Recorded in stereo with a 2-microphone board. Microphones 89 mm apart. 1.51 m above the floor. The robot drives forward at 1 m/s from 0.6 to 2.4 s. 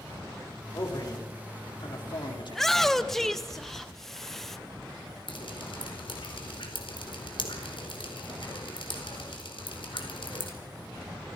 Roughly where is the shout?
Centre.